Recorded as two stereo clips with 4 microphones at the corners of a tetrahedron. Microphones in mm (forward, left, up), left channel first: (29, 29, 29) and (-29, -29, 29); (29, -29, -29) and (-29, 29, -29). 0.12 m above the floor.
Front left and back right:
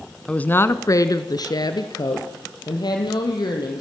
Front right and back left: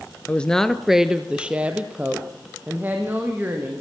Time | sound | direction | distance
0.3 | a woman speaking | 10° right | 1.1 m